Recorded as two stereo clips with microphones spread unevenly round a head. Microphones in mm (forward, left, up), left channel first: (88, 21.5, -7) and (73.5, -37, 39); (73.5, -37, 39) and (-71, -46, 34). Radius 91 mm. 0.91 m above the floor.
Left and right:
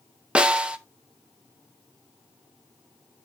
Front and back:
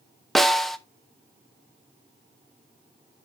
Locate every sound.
0.3 s a snare drum: 95° left, 0.6 m